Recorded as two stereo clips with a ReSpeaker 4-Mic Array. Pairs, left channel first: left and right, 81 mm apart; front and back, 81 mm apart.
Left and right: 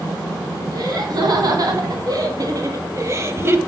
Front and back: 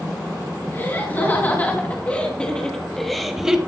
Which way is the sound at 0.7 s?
65° right.